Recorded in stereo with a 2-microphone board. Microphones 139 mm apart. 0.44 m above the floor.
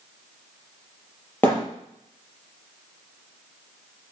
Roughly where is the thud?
Centre.